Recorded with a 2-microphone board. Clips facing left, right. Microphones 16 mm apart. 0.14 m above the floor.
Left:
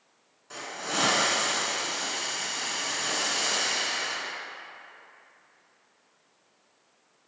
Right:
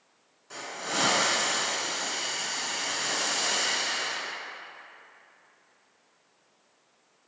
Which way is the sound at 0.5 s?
5° left (ahead or behind).